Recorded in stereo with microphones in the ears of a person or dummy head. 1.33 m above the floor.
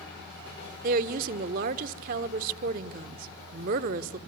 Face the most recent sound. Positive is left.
turn(degrees=-45)  # may be behind; listen again after turning